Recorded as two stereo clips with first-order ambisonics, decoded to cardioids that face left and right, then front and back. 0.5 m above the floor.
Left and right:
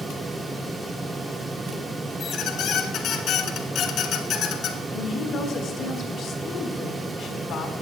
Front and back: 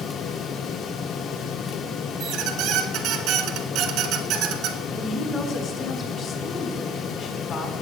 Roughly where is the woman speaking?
Ahead left.